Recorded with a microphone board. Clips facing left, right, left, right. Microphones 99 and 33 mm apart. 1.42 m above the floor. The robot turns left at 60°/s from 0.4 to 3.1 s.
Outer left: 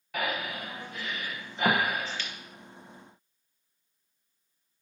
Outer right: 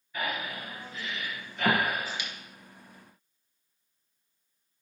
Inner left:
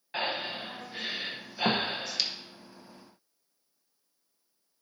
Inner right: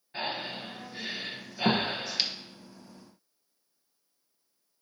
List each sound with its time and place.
0.1 s breathing: 80° left, 0.9 m; by 2.3 s 20° right (ahead or behind), 0.9 m